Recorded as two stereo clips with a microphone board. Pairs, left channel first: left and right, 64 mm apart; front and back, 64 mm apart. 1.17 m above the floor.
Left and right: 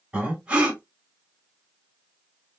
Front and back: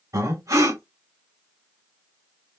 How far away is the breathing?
About 2.5 m.